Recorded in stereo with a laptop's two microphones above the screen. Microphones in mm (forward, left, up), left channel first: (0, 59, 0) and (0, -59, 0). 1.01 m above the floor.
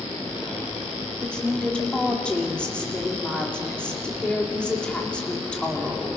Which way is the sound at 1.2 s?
10° left (ahead or behind).